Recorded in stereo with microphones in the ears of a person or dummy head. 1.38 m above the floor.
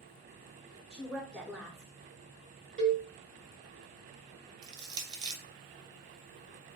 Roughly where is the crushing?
Right.